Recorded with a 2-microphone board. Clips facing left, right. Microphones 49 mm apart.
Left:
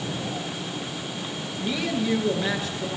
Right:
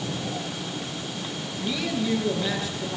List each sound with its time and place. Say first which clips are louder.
1.6 s a woman speaking: left 1 dB; 40° left (ahead or behind), 8.5 m